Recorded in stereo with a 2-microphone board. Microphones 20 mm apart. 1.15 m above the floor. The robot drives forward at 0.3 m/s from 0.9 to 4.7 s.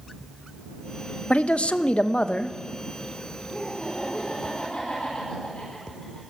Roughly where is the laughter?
Left.